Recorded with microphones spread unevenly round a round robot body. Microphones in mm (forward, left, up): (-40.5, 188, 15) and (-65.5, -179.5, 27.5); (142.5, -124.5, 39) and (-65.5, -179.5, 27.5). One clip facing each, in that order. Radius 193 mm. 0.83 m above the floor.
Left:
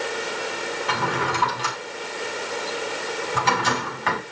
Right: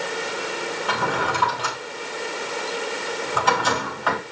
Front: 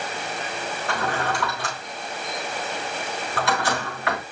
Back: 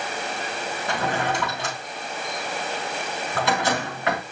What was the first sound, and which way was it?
A drawer, 145° left.